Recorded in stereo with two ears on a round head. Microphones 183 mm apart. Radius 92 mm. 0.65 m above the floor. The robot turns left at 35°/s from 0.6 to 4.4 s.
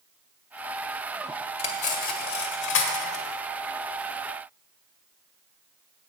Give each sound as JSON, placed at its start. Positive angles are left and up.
{"t": 1.6, "sound": "cutlery clinking", "side_deg": 30, "distance_m": 1.2}